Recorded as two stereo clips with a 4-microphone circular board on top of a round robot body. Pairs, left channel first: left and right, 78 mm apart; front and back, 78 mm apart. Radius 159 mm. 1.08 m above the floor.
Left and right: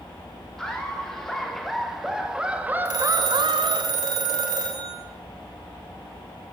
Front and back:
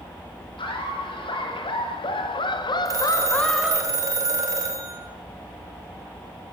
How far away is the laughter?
About 4.5 m.